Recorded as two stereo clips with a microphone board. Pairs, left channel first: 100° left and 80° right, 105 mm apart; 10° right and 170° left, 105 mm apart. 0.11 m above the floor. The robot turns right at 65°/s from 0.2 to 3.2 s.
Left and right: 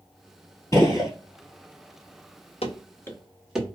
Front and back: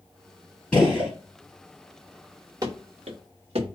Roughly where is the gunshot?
Ahead left.